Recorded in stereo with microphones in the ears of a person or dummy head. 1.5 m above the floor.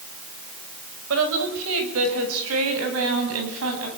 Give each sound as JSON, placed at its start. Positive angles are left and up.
{"t": 1.1, "sound": "a woman speaking", "side_deg": -75, "distance_m": 6.0}